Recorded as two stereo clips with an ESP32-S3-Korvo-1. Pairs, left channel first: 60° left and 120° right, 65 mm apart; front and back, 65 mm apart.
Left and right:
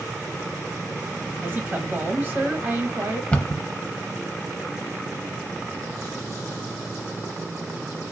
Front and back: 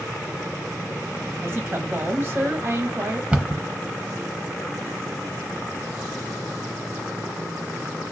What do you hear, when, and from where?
1.4 s a woman speaking: 155° right, 1.2 m
3.3 s a cupboard door: 120° left, 0.7 m